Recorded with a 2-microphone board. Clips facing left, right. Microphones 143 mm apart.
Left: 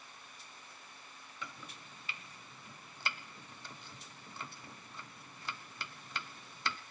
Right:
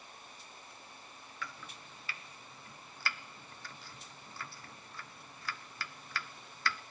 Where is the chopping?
20° left (ahead or behind), 0.6 m.